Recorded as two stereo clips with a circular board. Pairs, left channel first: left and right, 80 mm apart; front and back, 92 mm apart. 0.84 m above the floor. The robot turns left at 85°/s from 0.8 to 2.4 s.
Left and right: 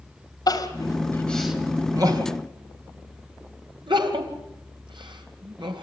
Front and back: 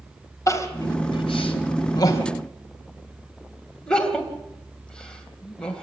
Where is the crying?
55° left, 2.5 m; by 5.8 s 80° right, 2.5 m.